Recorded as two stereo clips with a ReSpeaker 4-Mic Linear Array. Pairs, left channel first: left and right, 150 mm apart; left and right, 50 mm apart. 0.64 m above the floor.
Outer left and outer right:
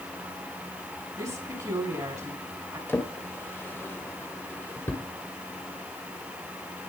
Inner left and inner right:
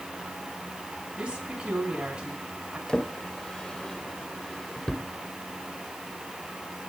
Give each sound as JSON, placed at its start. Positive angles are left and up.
{"t": 1.2, "sound": "a woman speaking", "side_deg": -25, "distance_m": 6.0}
{"t": 2.9, "sound": "a drawer", "side_deg": 15, "distance_m": 1.4}